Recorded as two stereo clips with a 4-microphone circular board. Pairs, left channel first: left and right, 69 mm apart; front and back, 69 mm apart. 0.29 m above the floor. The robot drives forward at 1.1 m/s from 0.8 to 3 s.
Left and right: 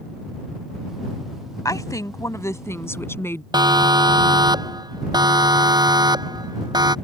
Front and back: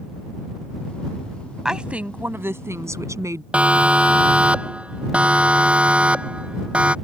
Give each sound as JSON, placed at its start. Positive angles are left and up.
{"t": 1.6, "sound": "a woman speaking", "azimuth_deg": 100}
{"t": 3.5, "sound": "a siren", "azimuth_deg": -105}